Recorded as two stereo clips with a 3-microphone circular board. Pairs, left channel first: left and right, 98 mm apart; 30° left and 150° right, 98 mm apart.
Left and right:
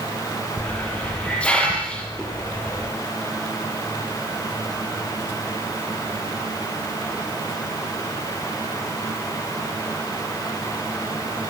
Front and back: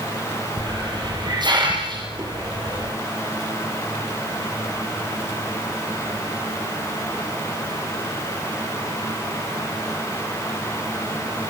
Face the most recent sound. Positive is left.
turn(degrees=170)